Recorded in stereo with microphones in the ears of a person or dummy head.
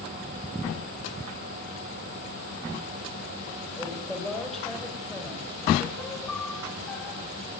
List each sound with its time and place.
3.8 s a woman speaking: 5° right (ahead or behind), 4.5 m
6.0 s a piano: 10° left (ahead or behind), 1.9 m